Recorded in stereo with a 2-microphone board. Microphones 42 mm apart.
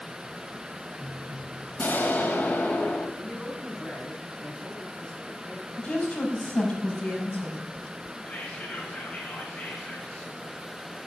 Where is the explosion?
45° left (ahead or behind), 2.5 m.